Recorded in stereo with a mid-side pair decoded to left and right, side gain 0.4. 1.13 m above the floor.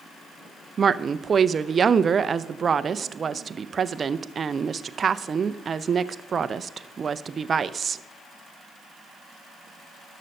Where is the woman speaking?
45° right, 0.5 m.